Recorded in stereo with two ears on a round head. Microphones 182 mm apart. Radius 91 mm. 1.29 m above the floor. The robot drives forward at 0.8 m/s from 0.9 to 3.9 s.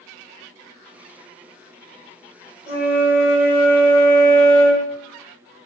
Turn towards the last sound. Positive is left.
turn(degrees=25)  # may be behind; listen again after turning